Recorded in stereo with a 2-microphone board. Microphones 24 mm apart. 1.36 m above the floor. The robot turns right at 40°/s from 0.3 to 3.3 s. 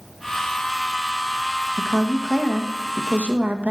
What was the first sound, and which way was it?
A woman speaking, 170° right.